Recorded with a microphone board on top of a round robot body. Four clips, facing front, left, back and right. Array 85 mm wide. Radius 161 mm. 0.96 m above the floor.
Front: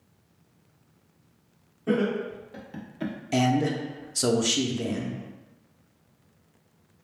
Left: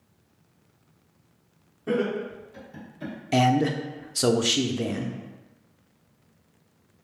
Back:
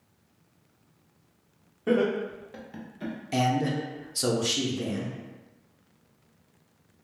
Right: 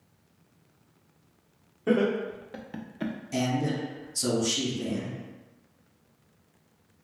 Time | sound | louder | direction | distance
1.9 | laughter | right 1 dB, back 1 dB | 125° right | 1.2 m
3.3 | a man speaking | left 8 dB, front 2 dB | 80° left | 0.5 m